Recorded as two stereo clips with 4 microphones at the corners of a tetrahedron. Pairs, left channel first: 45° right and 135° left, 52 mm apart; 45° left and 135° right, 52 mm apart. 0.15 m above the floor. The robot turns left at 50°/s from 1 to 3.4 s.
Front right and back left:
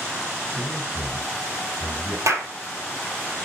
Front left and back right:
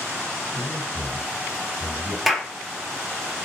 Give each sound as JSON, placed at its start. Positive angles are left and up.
{"t": 0.5, "sound": "a man speaking", "azimuth_deg": 40, "distance_m": 4.0}
{"t": 2.3, "sound": "a clap", "azimuth_deg": 140, "distance_m": 3.0}